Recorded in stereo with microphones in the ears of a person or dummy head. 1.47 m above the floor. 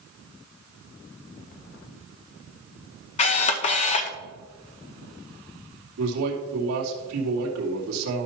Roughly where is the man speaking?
Right.